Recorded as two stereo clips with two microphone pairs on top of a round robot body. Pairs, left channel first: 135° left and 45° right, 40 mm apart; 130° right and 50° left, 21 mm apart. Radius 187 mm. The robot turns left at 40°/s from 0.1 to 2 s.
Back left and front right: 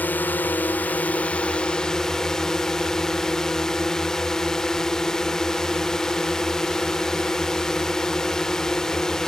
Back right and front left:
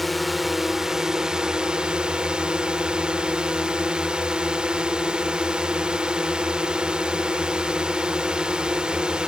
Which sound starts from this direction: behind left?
A drone, at 0.0 s.